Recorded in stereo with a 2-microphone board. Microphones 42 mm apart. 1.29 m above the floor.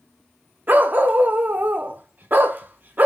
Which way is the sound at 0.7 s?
45° right (ahead or behind).